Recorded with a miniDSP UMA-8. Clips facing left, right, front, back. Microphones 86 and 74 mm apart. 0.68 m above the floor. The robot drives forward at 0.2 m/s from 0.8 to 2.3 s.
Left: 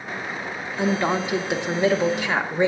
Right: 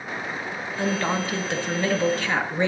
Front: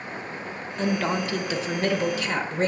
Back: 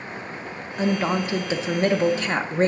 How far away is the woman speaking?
About 0.7 m.